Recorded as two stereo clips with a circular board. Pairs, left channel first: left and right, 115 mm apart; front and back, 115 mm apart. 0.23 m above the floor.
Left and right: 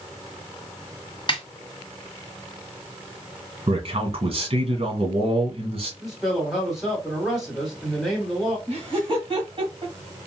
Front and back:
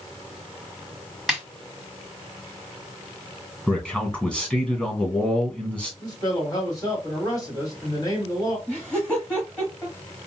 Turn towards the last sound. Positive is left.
turn(degrees=-75)